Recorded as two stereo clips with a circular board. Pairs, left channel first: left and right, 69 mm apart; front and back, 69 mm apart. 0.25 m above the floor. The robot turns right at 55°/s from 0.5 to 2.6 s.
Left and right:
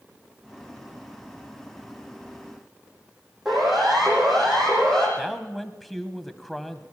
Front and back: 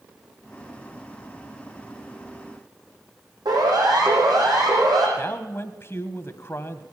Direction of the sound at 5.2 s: 5° left.